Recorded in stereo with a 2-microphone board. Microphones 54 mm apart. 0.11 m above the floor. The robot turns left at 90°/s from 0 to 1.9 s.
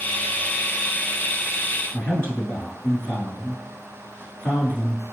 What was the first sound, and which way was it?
A man speaking, 30° left (ahead or behind).